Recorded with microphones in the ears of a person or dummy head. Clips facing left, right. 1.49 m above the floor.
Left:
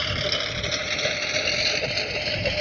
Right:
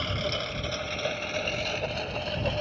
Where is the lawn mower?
25° left (ahead or behind); by 2.6 s 35° left (ahead or behind).